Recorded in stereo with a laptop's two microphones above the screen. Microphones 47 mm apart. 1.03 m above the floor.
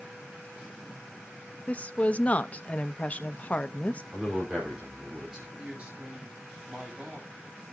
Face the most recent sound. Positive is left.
turn(degrees=-25)  # may be behind; listen again after turning